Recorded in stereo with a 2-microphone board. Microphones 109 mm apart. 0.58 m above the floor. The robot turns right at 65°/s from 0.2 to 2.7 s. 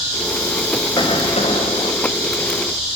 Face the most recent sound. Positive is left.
turn(degrees=160)